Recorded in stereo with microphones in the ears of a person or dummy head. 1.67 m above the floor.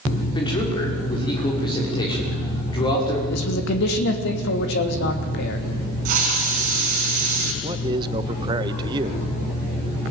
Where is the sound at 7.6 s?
25° right (ahead or behind), 1.3 m.